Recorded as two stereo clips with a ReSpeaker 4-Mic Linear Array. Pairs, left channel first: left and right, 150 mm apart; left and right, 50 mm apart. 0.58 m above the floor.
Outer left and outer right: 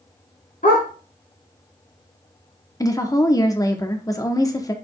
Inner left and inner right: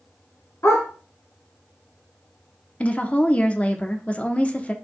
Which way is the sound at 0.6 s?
65° left (ahead or behind).